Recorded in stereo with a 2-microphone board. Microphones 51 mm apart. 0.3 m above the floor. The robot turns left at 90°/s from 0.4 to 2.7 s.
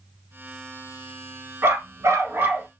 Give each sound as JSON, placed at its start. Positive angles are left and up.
{"t": 1.6, "sound": "a dog barking", "azimuth_deg": -55, "distance_m": 1.2}